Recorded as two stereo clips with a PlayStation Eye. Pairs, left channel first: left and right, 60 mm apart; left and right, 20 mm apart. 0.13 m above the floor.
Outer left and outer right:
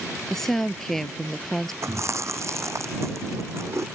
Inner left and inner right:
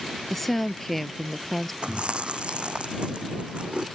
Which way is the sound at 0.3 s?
5° left (ahead or behind).